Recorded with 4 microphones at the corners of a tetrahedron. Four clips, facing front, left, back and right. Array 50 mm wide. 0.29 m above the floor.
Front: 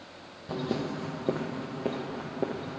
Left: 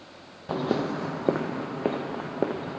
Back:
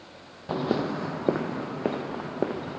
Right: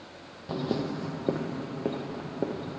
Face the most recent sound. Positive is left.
turn(degrees=130)